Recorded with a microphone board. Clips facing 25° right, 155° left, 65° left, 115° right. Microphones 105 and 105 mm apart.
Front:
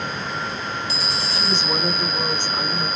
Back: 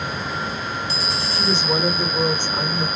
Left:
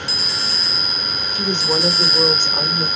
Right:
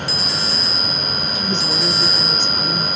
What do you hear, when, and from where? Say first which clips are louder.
1.3 s a woman speaking: back 4 dB, left 4 dB; 80° left, 1.8 m